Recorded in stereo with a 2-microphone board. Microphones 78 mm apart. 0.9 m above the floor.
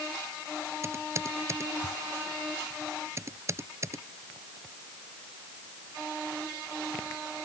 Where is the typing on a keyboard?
35° right (ahead or behind).